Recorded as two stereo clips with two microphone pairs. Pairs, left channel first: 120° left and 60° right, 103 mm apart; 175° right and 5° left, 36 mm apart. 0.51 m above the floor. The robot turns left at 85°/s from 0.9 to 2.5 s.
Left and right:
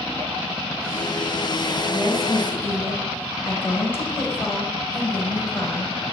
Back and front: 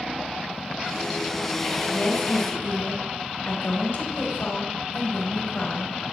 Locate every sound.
1.9 s a woman speaking: 125° right, 2.5 m; by 6.1 s 175° right, 2.5 m